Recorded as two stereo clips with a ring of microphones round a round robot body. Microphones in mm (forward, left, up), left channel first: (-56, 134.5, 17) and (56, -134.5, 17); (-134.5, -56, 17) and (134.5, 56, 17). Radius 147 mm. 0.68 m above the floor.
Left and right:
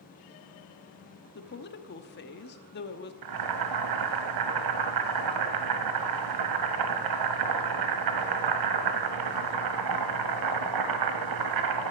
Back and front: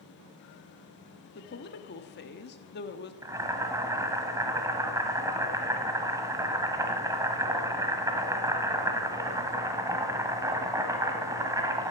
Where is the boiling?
55° right, 1.2 m.